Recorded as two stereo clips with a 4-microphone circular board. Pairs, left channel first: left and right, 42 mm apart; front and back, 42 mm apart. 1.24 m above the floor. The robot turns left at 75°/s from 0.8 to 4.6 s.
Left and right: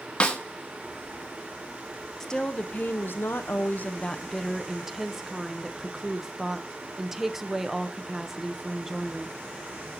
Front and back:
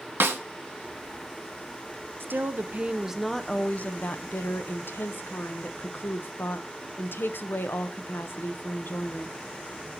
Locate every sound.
0.2 s a snare drum: 155° left, 0.9 m
2.2 s a woman speaking: 170° left, 0.6 m; by 9.3 s 10° right, 0.6 m